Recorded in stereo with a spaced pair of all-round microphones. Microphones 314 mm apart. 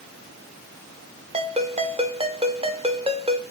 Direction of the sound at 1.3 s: 20° right (ahead or behind).